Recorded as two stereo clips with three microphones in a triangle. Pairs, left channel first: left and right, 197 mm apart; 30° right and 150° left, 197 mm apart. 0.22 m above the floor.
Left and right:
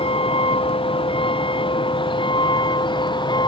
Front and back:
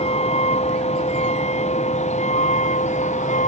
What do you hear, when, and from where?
0.0 s a vehicle: 30° left; by 3.5 s 20° left